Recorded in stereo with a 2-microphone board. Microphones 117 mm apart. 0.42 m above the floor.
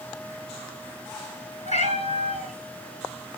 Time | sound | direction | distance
1.6 | a cat meowing | 85° left | 2.5 m